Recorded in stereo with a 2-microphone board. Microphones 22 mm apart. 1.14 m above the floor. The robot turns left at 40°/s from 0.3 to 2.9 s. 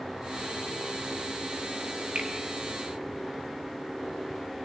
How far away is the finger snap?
About 1.1 m.